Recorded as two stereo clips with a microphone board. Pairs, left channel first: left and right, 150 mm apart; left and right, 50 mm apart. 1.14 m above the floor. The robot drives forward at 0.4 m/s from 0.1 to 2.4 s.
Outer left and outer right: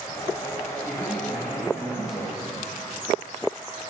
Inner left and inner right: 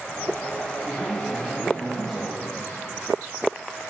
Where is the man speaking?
10° left (ahead or behind), 3.5 m.